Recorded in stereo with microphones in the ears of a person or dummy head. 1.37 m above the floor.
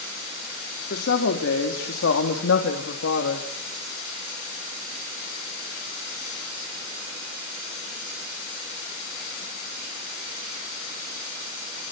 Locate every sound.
0.9 s a woman speaking: 65° left (ahead or behind), 3.5 m; by 3.5 s 70° left (ahead or behind), 2.5 m